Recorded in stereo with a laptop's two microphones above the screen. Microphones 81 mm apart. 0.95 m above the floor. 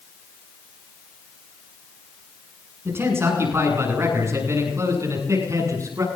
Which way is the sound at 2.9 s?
30° right (ahead or behind).